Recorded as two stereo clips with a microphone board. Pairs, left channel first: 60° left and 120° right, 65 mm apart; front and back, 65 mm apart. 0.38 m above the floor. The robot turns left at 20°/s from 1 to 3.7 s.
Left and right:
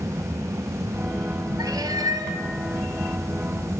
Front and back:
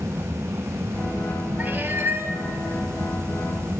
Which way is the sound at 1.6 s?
120° right.